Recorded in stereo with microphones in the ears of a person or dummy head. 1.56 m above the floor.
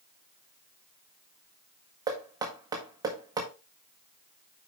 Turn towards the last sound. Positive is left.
turn(degrees=-15)  # may be behind; listen again after turning